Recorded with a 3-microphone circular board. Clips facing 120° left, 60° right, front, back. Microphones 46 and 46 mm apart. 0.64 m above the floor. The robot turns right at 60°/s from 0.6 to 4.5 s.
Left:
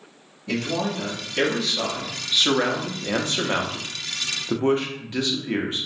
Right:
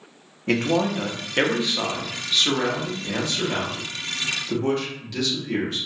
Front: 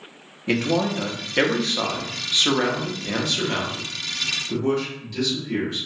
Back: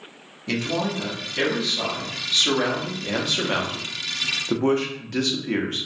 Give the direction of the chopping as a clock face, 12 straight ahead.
I don't hear chopping.